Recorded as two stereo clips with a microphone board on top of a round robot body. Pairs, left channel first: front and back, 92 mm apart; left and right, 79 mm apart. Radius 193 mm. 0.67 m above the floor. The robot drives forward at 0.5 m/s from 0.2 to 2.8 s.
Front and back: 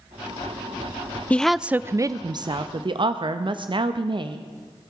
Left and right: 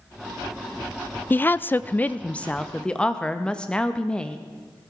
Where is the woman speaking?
55° left, 0.5 m; by 4.4 s 165° left, 0.8 m.